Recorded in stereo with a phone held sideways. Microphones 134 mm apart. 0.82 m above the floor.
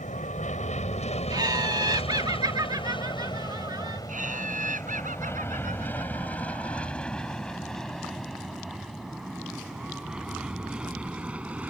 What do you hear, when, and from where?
0.0 s an aircraft: 60° left (ahead or behind); by 11.7 s 10° right (ahead or behind)
1.3 s laughter: 30° right (ahead or behind)
4.1 s laughter: 65° right (ahead or behind)